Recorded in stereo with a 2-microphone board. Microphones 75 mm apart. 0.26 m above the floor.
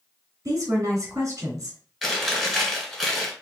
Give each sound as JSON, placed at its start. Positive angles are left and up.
{"t": 0.5, "sound": "a woman speaking", "side_deg": -50, "distance_m": 2.5}
{"t": 2.0, "sound": "chewing", "side_deg": -5, "distance_m": 1.8}